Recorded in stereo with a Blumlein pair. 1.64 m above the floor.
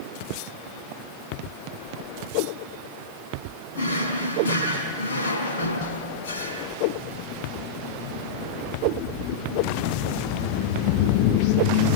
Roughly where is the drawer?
Ahead left.